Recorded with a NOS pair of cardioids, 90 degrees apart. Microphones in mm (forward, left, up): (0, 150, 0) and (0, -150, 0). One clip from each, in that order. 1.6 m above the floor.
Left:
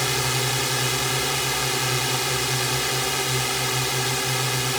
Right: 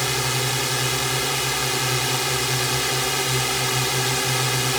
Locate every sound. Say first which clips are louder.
0.0 s a drone: even; 5° right; by 4.8 s 15° right